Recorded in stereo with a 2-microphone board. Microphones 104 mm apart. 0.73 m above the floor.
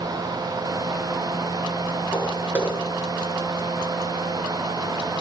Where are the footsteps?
15° right (ahead or behind), 8 m.